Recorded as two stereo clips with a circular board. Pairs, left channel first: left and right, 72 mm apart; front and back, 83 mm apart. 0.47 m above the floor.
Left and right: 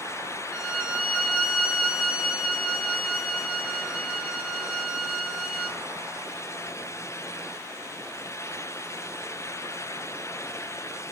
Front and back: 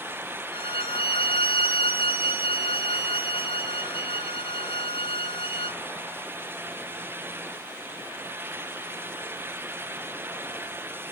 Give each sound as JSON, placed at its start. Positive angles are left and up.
{"t": 0.5, "sound": "a violin", "azimuth_deg": -10, "distance_m": 0.9}